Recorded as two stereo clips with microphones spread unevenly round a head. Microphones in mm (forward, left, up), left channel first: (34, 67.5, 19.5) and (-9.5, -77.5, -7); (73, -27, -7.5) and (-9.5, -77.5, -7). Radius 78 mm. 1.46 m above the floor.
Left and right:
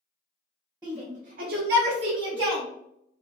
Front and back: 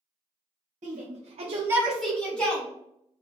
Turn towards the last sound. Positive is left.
turn(degrees=-45)